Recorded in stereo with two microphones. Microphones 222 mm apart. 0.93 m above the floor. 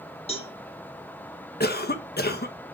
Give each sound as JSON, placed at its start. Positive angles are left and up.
{"t": 0.3, "sound": "a cowbell", "side_deg": 25, "distance_m": 2.5}
{"t": 1.6, "sound": "a cough", "side_deg": 45, "distance_m": 1.0}